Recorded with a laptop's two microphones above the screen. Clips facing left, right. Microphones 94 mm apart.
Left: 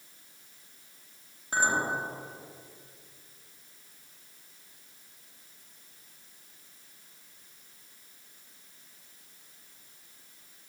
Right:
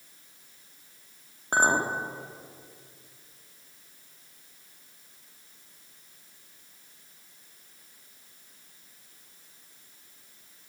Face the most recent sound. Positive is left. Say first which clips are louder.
# right 4 dB
turn(degrees=-50)  # may be behind; listen again after turning